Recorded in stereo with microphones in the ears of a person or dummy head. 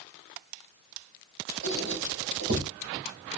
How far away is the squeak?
About 1.7 m.